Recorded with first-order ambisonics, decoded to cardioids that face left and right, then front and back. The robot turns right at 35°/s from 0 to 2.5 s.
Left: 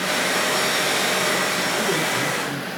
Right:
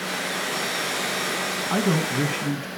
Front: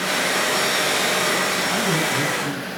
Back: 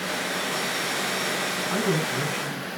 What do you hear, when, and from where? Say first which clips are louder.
1.7 s a man speaking: left 3 dB, front 5 dB; 90° right, 5 m; by 2.7 s 60° right, 5 m